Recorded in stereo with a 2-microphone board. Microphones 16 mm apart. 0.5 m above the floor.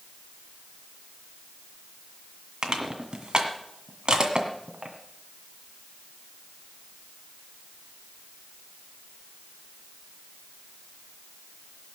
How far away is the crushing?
About 1.8 m.